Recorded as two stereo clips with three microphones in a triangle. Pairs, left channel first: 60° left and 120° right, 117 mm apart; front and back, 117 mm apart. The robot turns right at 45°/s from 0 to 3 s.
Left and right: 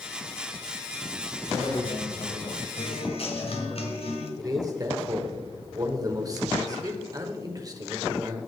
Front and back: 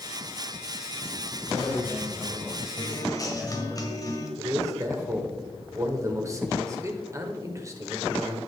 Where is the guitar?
45° left, 1.6 m; by 4.3 s 55° left, 1.6 m.